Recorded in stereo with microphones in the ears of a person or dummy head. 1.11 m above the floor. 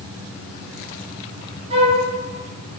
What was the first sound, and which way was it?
A flute, 35° right (ahead or behind).